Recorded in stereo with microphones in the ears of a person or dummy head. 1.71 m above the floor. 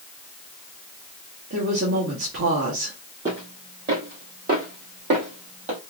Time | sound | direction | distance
1.5 | a woman speaking | 60° right (ahead or behind) | 1.4 m
3.2 | footsteps | 30° right (ahead or behind) | 2.5 m